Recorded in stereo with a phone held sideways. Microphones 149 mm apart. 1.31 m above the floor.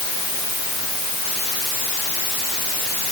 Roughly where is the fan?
No fan in this recording.